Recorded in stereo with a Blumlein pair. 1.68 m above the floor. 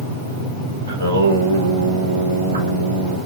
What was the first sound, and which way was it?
Singing, 70° right.